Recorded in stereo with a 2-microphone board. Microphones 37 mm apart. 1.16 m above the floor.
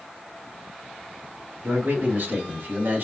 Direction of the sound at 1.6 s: 80° right.